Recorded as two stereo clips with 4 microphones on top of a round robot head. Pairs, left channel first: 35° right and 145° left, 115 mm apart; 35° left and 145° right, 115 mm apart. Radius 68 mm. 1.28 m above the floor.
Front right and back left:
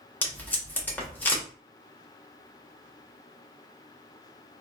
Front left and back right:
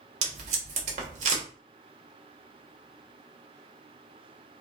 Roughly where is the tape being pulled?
Behind right.